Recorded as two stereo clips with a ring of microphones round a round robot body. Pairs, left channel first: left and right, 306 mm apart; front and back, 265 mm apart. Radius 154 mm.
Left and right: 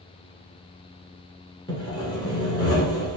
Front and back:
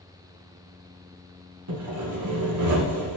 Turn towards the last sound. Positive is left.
turn(degrees=165)